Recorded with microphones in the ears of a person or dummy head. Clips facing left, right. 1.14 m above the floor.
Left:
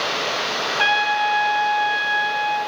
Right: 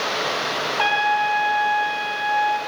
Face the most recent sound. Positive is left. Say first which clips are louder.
# right 1 dB
turn(degrees=20)  # may be behind; listen again after turning